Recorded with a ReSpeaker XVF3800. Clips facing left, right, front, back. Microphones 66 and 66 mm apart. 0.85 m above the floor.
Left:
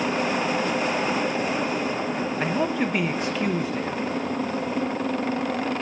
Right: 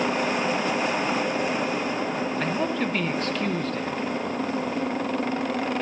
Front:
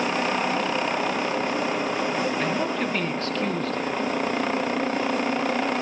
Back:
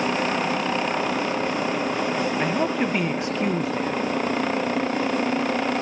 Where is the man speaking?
140° left, 0.6 m.